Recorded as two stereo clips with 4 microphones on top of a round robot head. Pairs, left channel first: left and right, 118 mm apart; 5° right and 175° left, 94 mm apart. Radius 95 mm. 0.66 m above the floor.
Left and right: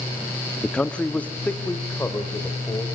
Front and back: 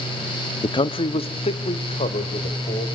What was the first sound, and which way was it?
A man speaking, 5° left.